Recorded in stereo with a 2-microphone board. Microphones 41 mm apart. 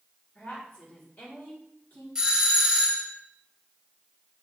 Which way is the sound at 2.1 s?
10° right (ahead or behind).